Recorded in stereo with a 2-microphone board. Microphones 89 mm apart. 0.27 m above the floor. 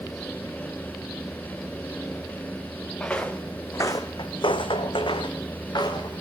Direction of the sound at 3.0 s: 10° left (ahead or behind).